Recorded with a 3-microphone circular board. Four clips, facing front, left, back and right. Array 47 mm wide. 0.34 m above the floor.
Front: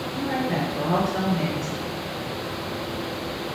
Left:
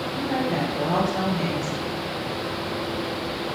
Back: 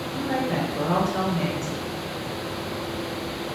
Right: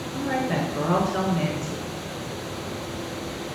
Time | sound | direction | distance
0.1 | a woman speaking | 100° right | 3.5 m